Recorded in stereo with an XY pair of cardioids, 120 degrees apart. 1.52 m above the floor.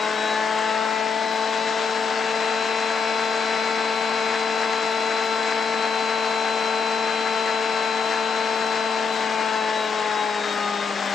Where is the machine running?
30° left, 1.1 m.